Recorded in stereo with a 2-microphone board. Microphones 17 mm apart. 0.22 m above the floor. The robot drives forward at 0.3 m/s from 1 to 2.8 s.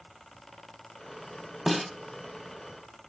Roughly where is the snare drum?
Right.